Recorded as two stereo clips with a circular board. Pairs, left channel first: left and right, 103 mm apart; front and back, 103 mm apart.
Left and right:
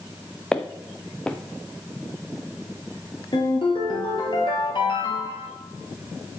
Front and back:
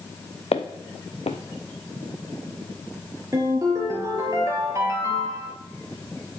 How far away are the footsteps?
About 0.8 m.